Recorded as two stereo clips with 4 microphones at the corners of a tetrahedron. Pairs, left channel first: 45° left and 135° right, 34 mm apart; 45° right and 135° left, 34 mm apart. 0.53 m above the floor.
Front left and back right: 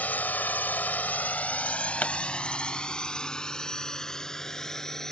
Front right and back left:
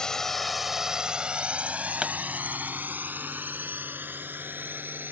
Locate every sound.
0.0 s a drone: 20° left; by 5.1 s 120° left
2.0 s a pop: 70° left